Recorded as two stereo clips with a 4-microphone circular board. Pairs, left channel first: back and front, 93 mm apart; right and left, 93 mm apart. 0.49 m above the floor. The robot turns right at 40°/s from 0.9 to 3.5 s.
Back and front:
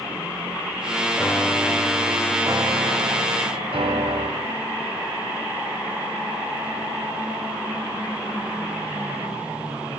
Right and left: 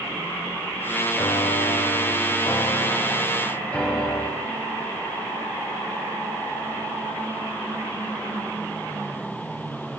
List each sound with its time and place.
1.1 s a piano: 110° right, 0.6 m; by 4.3 s 15° right, 0.6 m